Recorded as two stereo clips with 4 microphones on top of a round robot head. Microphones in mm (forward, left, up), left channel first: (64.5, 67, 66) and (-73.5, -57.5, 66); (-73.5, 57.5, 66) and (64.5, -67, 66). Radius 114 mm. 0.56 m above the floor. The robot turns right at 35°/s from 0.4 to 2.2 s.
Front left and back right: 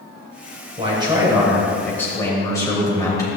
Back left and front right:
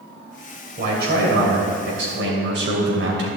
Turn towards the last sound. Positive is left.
turn(degrees=-30)